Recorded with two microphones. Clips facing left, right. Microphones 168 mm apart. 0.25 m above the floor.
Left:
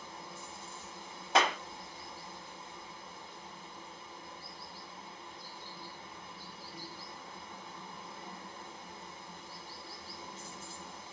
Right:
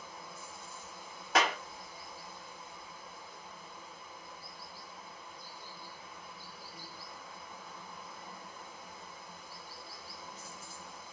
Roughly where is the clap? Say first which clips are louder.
Left 1 dB; left.